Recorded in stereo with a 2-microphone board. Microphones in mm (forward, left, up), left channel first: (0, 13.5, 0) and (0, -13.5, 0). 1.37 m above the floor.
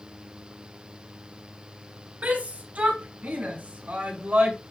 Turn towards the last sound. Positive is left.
turn(degrees=-75)  # may be behind; listen again after turning